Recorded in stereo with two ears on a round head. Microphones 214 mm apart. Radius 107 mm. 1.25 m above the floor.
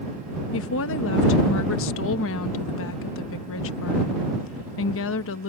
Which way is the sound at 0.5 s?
55° left (ahead or behind).